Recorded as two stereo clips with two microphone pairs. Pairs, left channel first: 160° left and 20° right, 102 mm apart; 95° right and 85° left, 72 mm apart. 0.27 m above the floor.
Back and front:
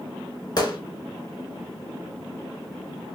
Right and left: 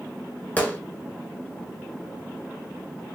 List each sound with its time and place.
0.6 s a gunshot: 155° right, 0.9 m